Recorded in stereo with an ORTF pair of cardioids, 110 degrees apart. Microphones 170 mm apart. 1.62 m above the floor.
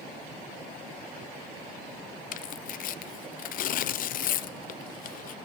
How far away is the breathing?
No breathing in this recording.